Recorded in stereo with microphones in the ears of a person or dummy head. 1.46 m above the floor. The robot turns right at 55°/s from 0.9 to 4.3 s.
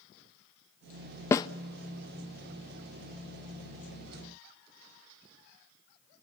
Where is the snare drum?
20° left (ahead or behind), 0.5 m; by 1.5 s 30° left (ahead or behind), 0.5 m.